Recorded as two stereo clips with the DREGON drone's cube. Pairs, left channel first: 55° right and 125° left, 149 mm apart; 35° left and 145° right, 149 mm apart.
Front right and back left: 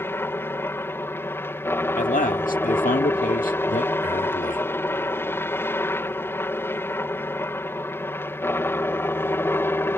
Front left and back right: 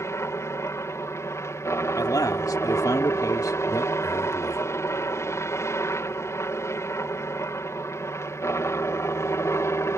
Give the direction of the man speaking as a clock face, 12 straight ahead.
1 o'clock.